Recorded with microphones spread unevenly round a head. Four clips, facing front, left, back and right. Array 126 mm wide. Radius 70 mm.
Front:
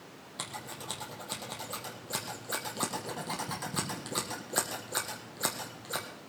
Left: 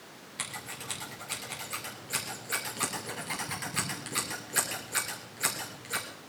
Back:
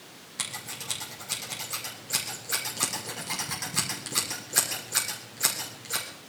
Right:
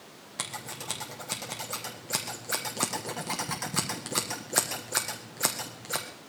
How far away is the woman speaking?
I don't hear a woman speaking.